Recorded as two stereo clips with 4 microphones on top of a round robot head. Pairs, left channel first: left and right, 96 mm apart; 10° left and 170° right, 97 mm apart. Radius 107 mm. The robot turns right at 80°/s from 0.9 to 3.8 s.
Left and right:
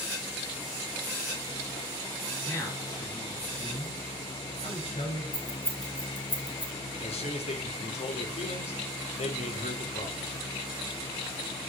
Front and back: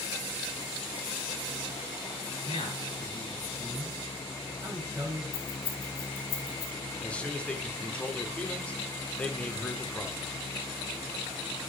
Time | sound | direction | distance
2.5 | a man speaking | 20° left | 9.5 m
5.3 | keys jangling | 20° left | 2.5 m
7.0 | a man speaking | 85° left | 2.5 m